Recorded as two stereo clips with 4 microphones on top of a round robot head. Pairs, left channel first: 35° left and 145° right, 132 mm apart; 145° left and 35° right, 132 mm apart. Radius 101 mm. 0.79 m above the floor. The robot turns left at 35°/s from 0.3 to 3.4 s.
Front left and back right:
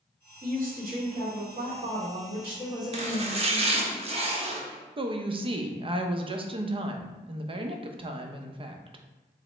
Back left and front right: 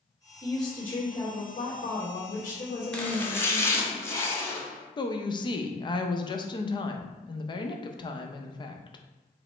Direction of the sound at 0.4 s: 145° right.